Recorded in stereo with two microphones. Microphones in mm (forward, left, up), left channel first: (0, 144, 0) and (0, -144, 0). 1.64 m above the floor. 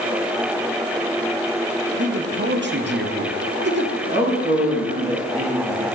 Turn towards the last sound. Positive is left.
turn(degrees=-25)  # may be behind; listen again after turning